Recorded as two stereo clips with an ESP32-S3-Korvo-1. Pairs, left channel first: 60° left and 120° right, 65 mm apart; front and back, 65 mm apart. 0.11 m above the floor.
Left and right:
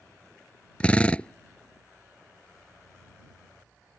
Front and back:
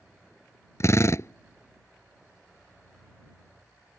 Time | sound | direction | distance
0.8 | a drill | 5° right | ?